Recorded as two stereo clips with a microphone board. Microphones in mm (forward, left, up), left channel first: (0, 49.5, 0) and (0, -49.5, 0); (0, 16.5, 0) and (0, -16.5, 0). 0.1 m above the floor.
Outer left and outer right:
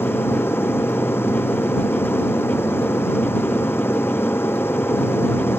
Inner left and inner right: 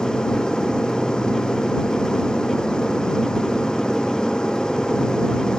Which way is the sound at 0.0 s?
20° left (ahead or behind).